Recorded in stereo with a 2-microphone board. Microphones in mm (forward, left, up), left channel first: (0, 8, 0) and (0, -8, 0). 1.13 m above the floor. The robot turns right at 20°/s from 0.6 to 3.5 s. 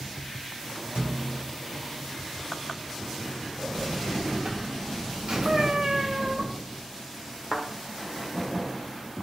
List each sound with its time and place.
0.9 s a thud: 65° right (ahead or behind), 1.7 m; by 1.6 s 55° right (ahead or behind), 1.7 m
3.6 s a buzzer: 60° right (ahead or behind), 1.3 m
5.5 s a cat meowing: 40° right (ahead or behind), 0.7 m
7.5 s a thud: 20° right (ahead or behind), 1.9 m